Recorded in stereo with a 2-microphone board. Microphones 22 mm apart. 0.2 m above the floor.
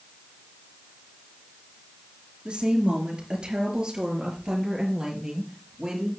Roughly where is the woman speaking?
Right.